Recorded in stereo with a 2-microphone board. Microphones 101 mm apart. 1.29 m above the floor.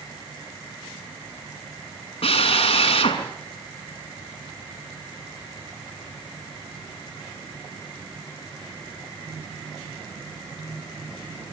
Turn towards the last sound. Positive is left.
turn(degrees=65)  # may be behind; listen again after turning